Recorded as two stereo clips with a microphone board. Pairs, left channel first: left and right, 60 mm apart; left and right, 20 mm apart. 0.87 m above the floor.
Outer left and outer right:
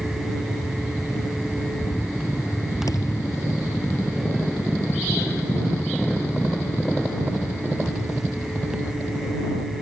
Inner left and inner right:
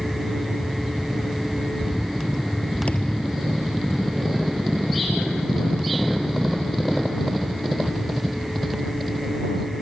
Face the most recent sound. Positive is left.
turn(degrees=75)  # may be behind; listen again after turning